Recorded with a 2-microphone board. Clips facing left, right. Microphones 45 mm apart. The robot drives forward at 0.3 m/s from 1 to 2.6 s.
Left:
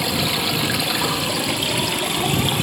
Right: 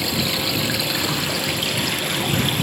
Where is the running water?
5° left (ahead or behind), 2 m.